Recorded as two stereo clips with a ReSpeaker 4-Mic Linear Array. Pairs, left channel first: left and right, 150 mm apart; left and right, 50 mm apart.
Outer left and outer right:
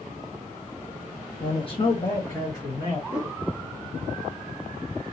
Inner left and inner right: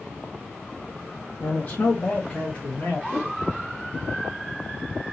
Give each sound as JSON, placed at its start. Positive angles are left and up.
{"t": 1.4, "sound": "a man speaking", "side_deg": 40, "distance_m": 0.5}
{"t": 3.1, "sound": "a whoosh", "side_deg": -10, "distance_m": 1.1}